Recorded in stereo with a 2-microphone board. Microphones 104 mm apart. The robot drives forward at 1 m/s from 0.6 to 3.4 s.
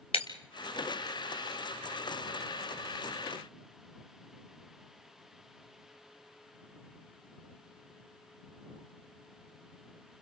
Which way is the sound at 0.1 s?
65° left (ahead or behind).